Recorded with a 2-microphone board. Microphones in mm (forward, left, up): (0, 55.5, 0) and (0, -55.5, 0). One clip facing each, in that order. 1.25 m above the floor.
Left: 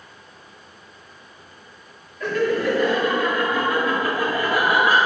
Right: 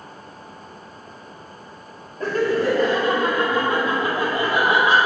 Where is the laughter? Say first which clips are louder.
Right 1 dB; 40° right (ahead or behind), 3 m; by 5.1 s 25° right (ahead or behind), 4 m.